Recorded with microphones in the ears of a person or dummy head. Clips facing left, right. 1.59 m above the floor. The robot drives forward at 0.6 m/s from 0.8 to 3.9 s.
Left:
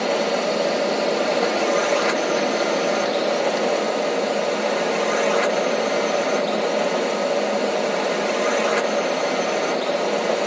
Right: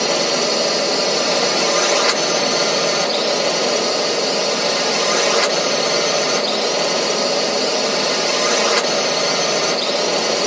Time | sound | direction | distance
0.0 | a drone | 60° right (ahead or behind) | ?